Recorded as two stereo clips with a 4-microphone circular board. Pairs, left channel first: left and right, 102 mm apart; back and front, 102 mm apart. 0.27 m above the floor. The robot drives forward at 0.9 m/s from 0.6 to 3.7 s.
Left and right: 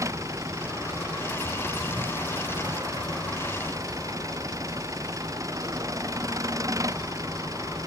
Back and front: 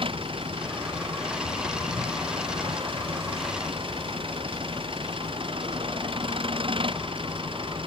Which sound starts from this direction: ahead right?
An engine running, at 0.0 s.